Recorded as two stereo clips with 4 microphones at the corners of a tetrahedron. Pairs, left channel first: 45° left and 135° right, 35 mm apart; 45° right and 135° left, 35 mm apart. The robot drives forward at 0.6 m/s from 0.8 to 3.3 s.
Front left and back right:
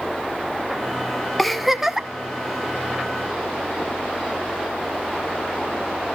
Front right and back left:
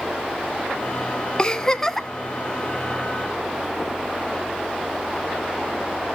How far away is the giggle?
About 0.8 m.